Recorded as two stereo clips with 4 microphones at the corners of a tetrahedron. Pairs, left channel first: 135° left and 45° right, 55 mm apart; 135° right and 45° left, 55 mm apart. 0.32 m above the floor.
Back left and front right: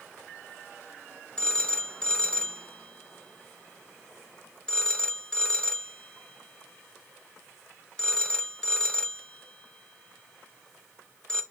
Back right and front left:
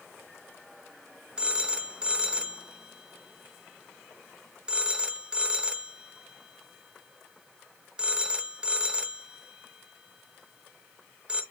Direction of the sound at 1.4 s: 90° left.